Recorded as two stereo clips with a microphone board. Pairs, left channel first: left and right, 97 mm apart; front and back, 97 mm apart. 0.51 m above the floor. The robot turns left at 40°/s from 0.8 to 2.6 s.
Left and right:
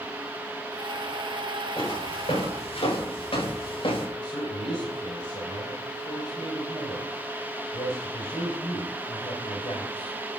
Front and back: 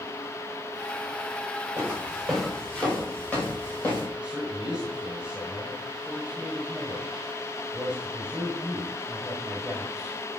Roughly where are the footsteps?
Behind left.